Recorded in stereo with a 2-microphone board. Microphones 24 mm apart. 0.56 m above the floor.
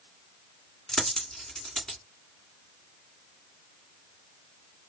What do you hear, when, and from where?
0.9 s a dropped coin: 25° left (ahead or behind), 1.8 m